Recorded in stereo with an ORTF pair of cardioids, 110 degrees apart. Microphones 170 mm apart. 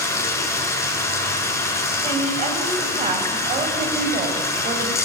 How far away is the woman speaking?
About 7.5 m.